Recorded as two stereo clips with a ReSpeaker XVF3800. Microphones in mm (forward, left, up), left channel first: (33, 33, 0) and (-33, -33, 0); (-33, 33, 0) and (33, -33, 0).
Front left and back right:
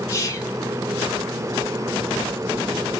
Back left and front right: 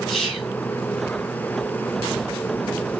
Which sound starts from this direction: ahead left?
Whispering, at 0.1 s.